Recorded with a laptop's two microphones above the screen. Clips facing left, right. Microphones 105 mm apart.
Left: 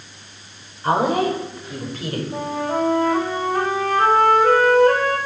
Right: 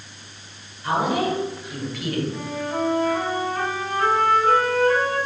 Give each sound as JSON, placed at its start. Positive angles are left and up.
{"t": 0.8, "sound": "a woman speaking", "side_deg": 45, "distance_m": 3.5}
{"t": 2.3, "sound": "a flute", "side_deg": 75, "distance_m": 3.5}